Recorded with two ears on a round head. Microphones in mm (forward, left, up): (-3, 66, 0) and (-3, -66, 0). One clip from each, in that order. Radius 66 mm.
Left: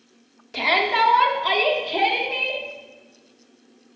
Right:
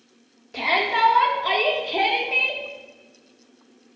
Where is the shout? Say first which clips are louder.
Left 2 dB; 25° left (ahead or behind), 1.2 m; by 2.6 s 15° right (ahead or behind), 1.0 m.